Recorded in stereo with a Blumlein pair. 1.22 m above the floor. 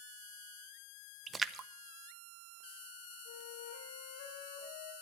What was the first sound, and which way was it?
A splash, 15° right.